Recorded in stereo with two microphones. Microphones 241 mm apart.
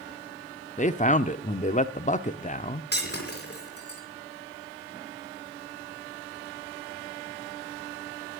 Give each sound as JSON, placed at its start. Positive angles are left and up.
{"t": 0.8, "sound": "a man speaking", "side_deg": 30, "distance_m": 0.7}
{"t": 2.9, "sound": "breaking glass", "side_deg": 45, "distance_m": 4.5}